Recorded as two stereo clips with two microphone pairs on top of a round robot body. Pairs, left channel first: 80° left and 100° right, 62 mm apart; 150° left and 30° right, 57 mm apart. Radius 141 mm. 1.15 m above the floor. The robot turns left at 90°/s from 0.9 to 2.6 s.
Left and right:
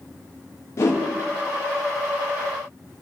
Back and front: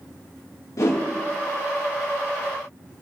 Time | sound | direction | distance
0.8 | a whoosh | 125° left | 0.8 m